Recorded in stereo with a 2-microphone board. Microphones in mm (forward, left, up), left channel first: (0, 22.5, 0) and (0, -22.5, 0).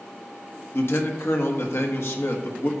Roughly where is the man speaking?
Left.